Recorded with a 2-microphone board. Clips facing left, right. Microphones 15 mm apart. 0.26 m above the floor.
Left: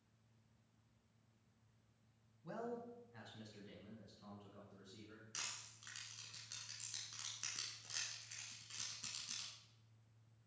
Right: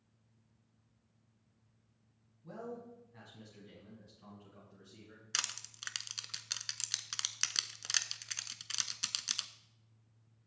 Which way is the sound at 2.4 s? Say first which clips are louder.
Right 1 dB; 25° left (ahead or behind).